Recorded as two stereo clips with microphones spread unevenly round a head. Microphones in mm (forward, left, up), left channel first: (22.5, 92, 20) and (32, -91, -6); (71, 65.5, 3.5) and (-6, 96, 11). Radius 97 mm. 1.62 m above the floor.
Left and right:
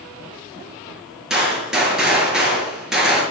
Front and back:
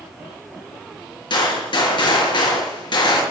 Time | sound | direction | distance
1.3 | a gunshot | straight ahead | 5 m